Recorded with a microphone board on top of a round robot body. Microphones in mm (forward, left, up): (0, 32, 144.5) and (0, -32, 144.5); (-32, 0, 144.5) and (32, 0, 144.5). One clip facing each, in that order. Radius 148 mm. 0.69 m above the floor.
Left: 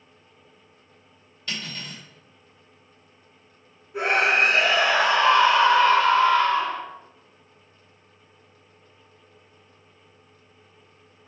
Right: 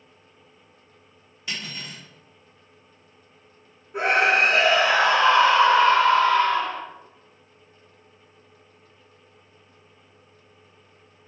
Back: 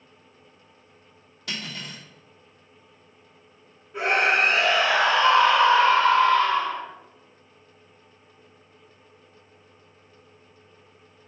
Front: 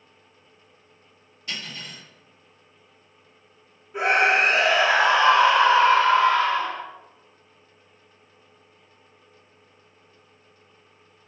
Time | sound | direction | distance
1.5 | cutlery clinking | 170° right | 1.2 m
3.9 | a scream | 75° right | 1.5 m